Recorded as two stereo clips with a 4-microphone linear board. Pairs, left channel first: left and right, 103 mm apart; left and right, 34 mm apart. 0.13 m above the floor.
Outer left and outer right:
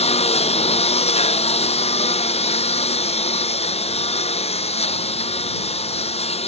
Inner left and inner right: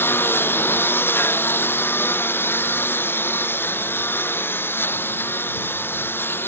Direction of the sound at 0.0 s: 85° left.